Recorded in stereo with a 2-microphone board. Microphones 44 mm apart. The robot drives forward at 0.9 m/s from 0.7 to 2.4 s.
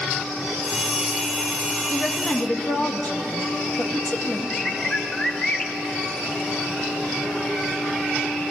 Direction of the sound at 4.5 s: 15° left (ahead or behind).